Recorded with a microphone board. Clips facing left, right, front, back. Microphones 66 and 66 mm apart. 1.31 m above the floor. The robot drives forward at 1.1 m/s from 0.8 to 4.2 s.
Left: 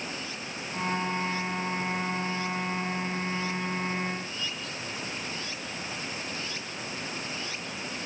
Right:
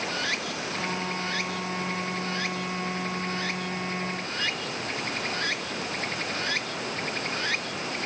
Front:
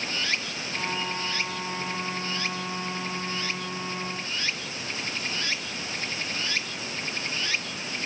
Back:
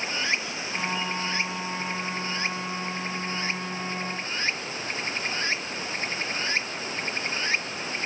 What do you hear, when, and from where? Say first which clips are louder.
0.0 s running water: right 7 dB, back 2 dB; 110° right; by 8.1 s 120° right